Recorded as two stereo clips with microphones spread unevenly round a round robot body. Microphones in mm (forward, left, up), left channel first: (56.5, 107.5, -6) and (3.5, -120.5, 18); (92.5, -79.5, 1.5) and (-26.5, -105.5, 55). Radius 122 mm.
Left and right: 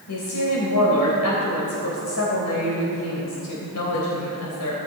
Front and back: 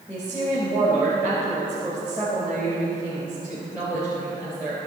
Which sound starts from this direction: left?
A woman speaking, at 0.1 s.